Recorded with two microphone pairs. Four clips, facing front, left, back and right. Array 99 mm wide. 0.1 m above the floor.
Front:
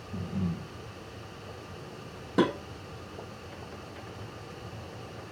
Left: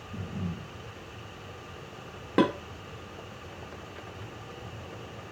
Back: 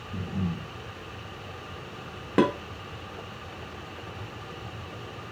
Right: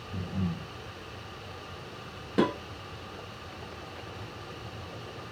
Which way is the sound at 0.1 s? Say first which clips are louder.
Right 3 dB, back 1 dB; 90° right.